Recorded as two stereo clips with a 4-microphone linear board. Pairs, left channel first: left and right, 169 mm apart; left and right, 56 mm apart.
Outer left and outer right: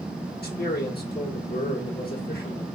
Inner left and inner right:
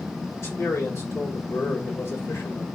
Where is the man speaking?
70° left (ahead or behind), 1.4 m.